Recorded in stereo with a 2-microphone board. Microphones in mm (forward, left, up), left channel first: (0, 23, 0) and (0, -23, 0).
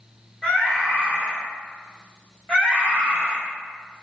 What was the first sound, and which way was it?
A scream, 10° left (ahead or behind).